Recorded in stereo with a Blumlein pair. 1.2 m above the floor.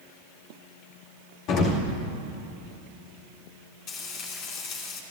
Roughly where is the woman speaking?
No woman speaking in this recording.